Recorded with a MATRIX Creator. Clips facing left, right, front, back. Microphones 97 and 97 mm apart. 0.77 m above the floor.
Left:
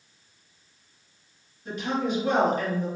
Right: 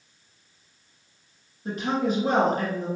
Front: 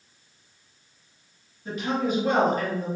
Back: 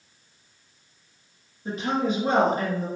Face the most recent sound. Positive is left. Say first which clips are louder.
# right 2 dB, back 1 dB
turn(degrees=-125)